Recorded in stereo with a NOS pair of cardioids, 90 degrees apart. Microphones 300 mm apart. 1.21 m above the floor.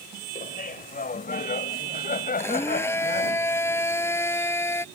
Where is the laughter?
30° left.